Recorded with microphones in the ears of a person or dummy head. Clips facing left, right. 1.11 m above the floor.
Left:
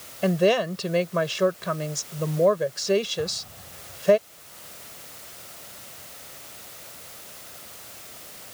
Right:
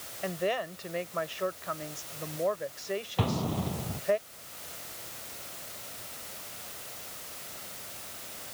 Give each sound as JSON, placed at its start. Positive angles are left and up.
{"t": 0.2, "sound": "a woman speaking", "side_deg": 85}
{"t": 3.2, "sound": "an explosion", "side_deg": -85}